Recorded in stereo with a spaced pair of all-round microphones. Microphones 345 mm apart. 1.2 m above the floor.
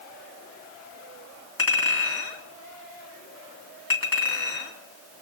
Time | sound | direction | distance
1.6 | a clink | 70° left (ahead or behind) | 2 m